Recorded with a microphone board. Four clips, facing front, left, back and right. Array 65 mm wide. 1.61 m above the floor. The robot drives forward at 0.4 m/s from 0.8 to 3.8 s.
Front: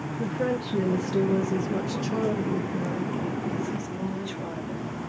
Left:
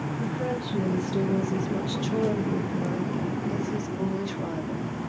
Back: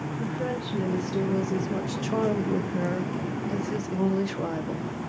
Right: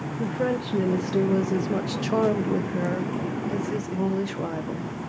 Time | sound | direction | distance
0.2 | a woman speaking | 60° right | 0.8 m